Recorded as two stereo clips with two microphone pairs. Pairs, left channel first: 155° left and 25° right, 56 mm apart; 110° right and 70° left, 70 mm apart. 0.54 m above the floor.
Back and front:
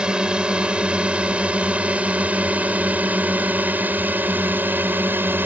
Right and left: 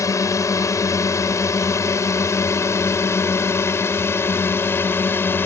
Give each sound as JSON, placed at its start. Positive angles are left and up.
{"t": 0.0, "sound": "a drone", "azimuth_deg": -95}